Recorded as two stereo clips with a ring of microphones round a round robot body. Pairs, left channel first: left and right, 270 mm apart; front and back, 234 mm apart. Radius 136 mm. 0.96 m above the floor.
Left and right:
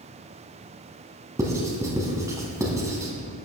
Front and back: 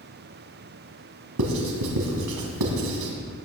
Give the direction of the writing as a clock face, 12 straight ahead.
6 o'clock.